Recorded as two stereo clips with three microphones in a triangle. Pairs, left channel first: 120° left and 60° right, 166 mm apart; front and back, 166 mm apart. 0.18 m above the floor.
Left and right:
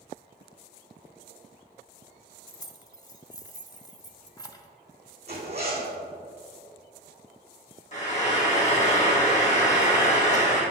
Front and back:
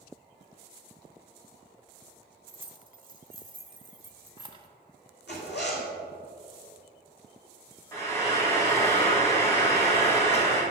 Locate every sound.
2.5 s keys jangling: 165° left, 0.7 m
5.3 s a zipper: 10° right, 1.9 m
7.9 s frying: 75° left, 2 m